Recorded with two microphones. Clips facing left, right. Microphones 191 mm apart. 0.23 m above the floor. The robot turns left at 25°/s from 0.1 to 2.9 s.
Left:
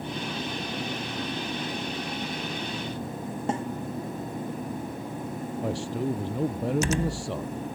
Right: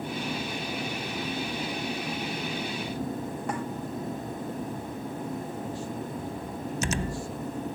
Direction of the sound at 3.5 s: 25° left (ahead or behind).